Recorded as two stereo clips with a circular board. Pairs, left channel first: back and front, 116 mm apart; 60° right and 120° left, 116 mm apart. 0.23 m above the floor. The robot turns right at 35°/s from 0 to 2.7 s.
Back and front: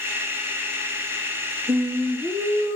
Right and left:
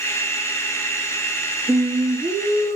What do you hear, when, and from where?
1.7 s singing: 80° left, 3 m; by 2.8 s 115° left, 3 m